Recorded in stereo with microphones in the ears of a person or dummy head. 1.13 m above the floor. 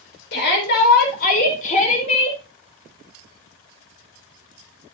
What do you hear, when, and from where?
0.3 s a shout: 65° left (ahead or behind), 5 m; by 2.4 s 35° left (ahead or behind), 5 m